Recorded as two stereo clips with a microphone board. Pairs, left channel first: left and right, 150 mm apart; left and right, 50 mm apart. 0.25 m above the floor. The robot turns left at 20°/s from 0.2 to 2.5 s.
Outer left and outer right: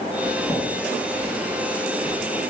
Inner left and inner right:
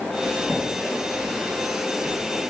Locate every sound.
0.2 s a zipper: 20° left (ahead or behind), 1.5 m; by 2.4 s 20° right (ahead or behind), 1.5 m